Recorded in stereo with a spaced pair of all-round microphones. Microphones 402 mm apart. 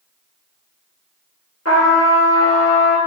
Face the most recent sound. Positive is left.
turn(degrees=35)  # may be behind; listen again after turning